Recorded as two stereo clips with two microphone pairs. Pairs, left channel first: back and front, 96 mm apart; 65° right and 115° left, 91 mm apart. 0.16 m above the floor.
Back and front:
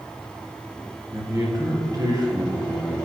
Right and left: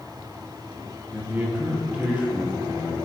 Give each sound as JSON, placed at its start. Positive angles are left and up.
{"t": 1.1, "sound": "a man speaking", "azimuth_deg": 50, "distance_m": 2.5}